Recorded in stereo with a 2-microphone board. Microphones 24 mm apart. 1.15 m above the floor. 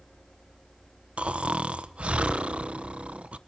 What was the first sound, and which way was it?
Snoring, 50° right (ahead or behind).